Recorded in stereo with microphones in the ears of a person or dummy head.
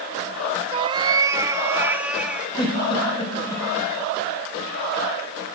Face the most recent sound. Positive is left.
turn(degrees=35)  # may be behind; listen again after turning